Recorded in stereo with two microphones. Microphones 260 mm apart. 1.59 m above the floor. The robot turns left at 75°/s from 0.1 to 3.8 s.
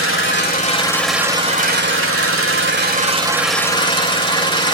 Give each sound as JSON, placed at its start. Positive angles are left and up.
{"t": 0.0, "sound": "an engine running", "azimuth_deg": 75, "distance_m": 2.0}